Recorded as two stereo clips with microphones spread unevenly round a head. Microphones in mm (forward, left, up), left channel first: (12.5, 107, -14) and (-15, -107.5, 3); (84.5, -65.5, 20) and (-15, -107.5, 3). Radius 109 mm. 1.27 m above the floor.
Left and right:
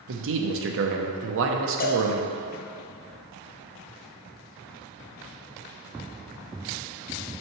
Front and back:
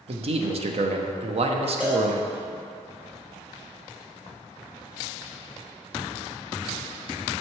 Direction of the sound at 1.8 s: 115° left.